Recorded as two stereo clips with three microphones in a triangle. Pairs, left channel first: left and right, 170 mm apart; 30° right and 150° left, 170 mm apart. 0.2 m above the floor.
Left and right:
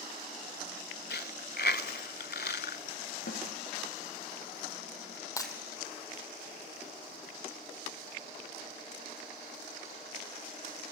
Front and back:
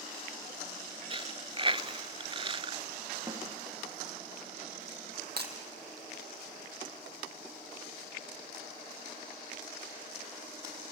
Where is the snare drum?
80° left, 6.5 m.